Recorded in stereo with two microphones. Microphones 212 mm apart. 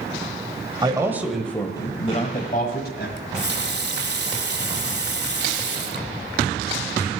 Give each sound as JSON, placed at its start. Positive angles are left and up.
{"t": 0.8, "sound": "a man speaking", "side_deg": -20, "distance_m": 1.6}
{"t": 3.2, "sound": "a running tap", "side_deg": -50, "distance_m": 1.3}